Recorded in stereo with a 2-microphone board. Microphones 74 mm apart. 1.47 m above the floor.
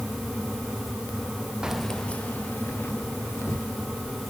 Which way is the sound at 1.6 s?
10° right (ahead or behind).